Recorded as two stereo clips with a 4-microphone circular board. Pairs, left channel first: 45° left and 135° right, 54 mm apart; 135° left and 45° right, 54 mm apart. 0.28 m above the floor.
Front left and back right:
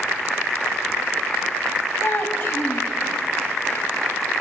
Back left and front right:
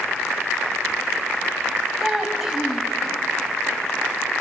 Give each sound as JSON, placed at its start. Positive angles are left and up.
{"t": 2.0, "sound": "a child speaking", "azimuth_deg": 35, "distance_m": 1.3}